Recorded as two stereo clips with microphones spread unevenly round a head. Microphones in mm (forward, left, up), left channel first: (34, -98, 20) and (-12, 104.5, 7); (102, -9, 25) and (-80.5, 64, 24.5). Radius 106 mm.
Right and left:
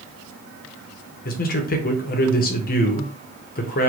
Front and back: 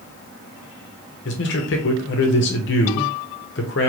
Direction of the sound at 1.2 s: 40° right.